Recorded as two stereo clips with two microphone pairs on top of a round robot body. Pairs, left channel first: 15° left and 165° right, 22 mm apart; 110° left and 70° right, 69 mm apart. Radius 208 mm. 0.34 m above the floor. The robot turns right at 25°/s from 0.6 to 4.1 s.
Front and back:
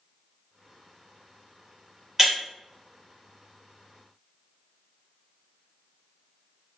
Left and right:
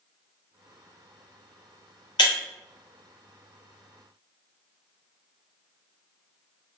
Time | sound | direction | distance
2.2 | breaking glass | 115° left | 0.7 m